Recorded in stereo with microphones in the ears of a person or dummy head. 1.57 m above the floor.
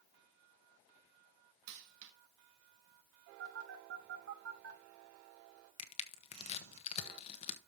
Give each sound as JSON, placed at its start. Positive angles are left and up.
{"t": 1.7, "sound": "a dropped coin", "side_deg": -70, "distance_m": 3.5}
{"t": 3.4, "sound": "a phone buzzing", "side_deg": -75, "distance_m": 4.0}
{"t": 5.8, "sound": "crushing", "side_deg": 30, "distance_m": 1.3}